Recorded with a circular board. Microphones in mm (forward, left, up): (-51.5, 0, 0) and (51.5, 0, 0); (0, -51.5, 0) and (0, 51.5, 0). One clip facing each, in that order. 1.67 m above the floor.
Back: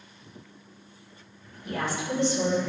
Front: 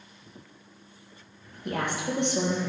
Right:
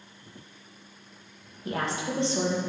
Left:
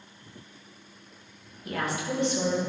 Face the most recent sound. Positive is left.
turn(degrees=-30)